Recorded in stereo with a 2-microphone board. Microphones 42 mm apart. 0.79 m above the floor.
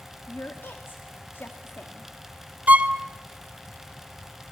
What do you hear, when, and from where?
0.3 s a woman speaking: 55° left (ahead or behind), 1.5 m
2.7 s a violin: 40° right (ahead or behind), 0.7 m